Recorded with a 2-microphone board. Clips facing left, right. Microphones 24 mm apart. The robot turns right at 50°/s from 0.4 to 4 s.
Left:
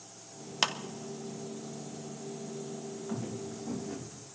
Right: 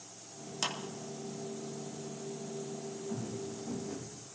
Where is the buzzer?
No buzzer in this recording.